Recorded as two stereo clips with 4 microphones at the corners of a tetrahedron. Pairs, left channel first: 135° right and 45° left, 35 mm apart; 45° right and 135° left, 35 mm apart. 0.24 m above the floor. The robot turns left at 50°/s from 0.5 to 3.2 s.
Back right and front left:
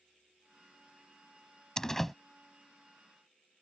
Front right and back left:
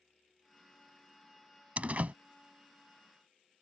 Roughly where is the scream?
I don't hear a scream.